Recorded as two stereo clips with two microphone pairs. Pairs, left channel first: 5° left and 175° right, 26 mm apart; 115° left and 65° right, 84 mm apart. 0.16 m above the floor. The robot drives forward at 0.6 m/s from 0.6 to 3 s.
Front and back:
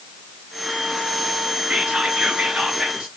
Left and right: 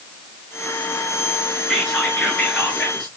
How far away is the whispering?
About 2.5 m.